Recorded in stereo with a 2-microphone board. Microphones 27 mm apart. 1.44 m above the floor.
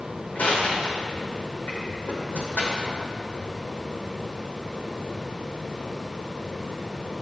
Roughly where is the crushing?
Left.